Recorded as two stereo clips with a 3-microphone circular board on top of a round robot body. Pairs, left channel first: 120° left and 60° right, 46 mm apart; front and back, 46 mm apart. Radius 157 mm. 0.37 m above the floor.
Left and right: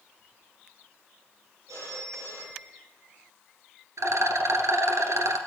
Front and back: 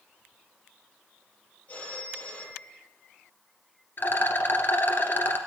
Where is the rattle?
45° right, 1.8 m.